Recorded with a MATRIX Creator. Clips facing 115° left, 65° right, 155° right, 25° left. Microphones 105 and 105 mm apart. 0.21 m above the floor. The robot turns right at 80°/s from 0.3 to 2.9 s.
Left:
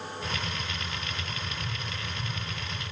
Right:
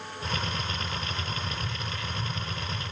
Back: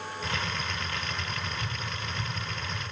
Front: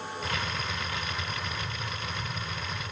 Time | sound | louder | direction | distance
1.6 | tapping | right 2 dB, even | 145° right | 5.5 m